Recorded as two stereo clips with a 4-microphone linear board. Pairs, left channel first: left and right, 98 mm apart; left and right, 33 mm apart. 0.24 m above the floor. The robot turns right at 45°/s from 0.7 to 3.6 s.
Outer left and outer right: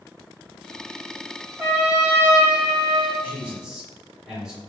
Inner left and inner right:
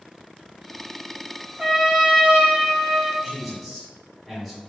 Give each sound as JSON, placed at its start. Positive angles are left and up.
{"t": 1.6, "sound": "a trumpet", "side_deg": -15, "distance_m": 1.5}
{"t": 3.2, "sound": "a man speaking", "side_deg": -20, "distance_m": 1.7}